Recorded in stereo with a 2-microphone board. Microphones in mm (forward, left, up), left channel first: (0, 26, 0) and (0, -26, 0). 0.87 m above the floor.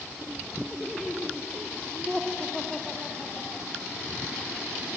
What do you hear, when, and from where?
0.7 s laughter: 5° left (ahead or behind)